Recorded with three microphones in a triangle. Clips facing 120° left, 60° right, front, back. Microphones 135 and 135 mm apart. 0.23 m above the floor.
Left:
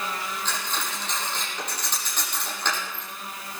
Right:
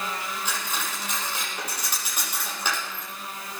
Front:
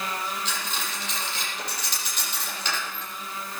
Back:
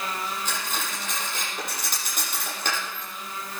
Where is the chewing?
No chewing in this recording.